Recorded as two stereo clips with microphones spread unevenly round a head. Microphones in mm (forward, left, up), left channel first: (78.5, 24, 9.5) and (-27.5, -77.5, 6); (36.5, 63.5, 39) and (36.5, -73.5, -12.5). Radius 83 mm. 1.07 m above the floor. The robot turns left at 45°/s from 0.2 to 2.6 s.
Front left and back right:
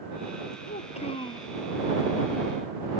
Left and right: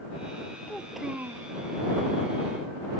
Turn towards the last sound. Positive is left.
turn(degrees=-75)